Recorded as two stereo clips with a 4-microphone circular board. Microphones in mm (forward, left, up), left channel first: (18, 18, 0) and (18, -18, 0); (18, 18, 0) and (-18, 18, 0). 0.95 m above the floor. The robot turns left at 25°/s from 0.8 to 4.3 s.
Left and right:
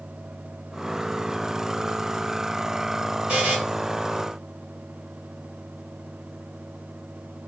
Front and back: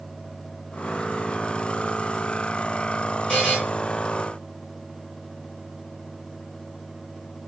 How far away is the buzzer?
About 1.5 m.